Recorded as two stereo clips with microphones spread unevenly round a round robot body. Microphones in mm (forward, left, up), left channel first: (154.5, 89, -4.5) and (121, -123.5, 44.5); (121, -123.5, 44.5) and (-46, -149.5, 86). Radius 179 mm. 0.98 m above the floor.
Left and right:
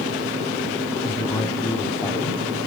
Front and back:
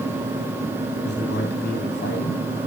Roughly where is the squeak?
No squeak in this recording.